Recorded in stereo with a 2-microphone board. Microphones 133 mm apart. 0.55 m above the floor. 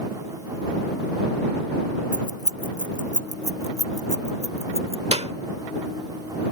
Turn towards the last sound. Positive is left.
turn(degrees=-50)  # may be behind; listen again after turning